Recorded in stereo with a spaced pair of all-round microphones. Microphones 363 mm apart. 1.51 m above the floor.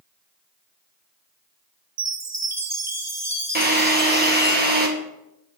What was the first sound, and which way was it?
A chime, 45° right (ahead or behind).